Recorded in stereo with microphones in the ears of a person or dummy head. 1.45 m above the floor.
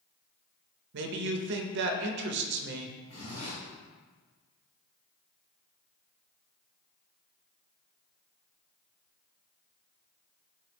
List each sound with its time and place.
0.9 s a man speaking: 55° right (ahead or behind), 0.5 m
3.1 s a zipper: 45° left (ahead or behind), 1.6 m